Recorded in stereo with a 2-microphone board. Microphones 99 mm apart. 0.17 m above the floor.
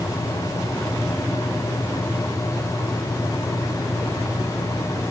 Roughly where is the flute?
I don't hear a flute.